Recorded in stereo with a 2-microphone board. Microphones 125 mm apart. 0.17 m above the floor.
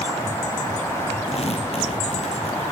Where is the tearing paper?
55° left (ahead or behind), 3.5 m.